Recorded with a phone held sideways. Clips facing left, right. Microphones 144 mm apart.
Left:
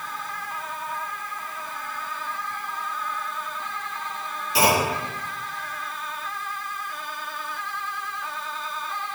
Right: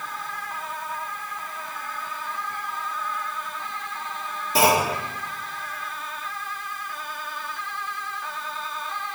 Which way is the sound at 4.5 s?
50° right (ahead or behind).